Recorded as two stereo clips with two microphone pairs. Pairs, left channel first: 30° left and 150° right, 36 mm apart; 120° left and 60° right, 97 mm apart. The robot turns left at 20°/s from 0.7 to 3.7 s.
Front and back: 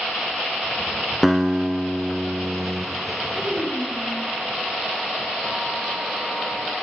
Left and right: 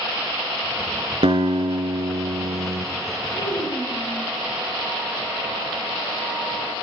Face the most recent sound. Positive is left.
turn(degrees=155)